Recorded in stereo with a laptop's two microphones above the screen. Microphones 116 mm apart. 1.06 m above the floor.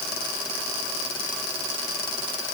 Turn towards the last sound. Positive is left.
No sound to turn to.